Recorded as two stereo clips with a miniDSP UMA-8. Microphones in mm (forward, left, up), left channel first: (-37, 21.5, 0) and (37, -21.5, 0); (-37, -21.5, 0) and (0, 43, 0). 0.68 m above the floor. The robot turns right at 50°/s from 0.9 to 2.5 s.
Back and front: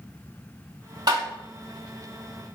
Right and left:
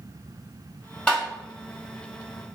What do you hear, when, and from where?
1.1 s tapping: 45° right, 1.6 m; by 1.2 s 40° right, 1.6 m